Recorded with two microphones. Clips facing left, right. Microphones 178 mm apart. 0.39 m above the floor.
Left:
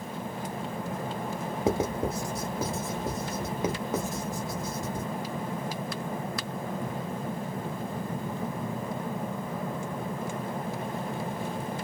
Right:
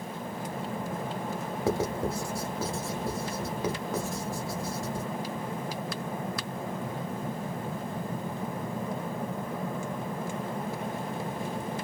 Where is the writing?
20° left (ahead or behind), 1.2 m.